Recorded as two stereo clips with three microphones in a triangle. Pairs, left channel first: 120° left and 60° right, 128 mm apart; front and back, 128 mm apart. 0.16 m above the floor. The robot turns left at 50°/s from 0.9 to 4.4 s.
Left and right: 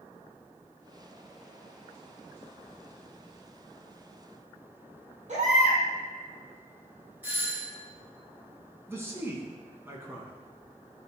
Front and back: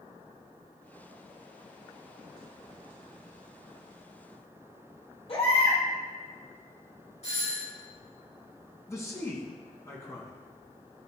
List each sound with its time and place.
5.3 s a baby crying: 40° right, 3 m
7.2 s a doorbell: 10° left, 3 m
8.9 s a man speaking: 20° right, 1.5 m